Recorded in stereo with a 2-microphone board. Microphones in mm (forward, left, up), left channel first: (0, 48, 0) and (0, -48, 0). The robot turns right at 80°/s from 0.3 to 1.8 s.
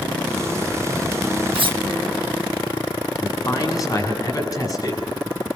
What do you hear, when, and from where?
1.5 s cutlery clinking: 65° right (ahead or behind), 0.7 m; by 1.8 s 50° right (ahead or behind), 0.7 m
3.2 s a man speaking: 40° left (ahead or behind), 6 m